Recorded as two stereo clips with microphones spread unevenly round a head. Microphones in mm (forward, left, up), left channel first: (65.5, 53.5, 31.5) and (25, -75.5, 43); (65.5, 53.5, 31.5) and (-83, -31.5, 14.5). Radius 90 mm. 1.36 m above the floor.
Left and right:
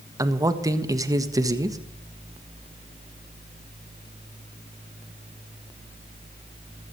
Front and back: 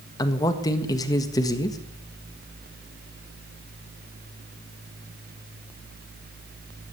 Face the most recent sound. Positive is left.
turn(degrees=-40)